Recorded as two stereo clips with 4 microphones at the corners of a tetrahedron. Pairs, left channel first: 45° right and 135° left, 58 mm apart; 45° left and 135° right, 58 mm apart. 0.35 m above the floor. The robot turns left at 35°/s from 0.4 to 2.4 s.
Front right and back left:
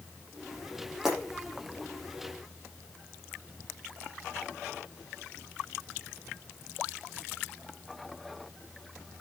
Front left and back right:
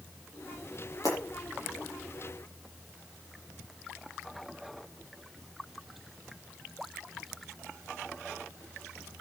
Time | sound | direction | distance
1.0 | breaking glass | 55° left | 7.5 m